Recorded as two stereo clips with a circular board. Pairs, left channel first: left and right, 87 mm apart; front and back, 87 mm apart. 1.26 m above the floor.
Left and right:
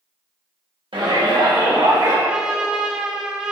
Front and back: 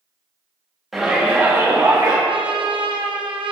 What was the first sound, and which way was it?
A shout, 90° right.